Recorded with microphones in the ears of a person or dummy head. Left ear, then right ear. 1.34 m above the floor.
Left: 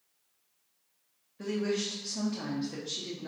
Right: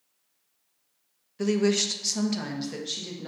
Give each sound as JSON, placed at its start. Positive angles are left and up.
{"t": 1.4, "sound": "a woman speaking", "side_deg": -75, "distance_m": 0.6}